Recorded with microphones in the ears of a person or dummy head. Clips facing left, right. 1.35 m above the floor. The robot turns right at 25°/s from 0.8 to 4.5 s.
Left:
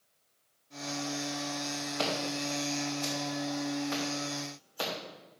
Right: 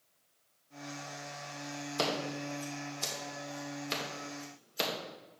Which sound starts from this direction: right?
Scissors, at 2.0 s.